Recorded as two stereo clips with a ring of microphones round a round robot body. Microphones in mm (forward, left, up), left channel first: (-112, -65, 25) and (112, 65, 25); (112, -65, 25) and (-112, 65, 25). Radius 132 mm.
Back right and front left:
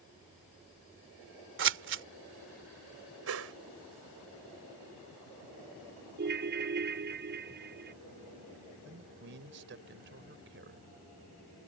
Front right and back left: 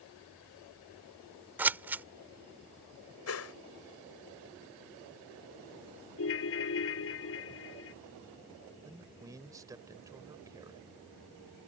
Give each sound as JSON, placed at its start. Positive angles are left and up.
{"t": 1.6, "sound": "scissors", "azimuth_deg": 65}
{"t": 3.3, "sound": "a whoosh", "azimuth_deg": 0}
{"t": 6.2, "sound": "a ringtone", "azimuth_deg": -10}
{"t": 8.8, "sound": "a man speaking", "azimuth_deg": 75}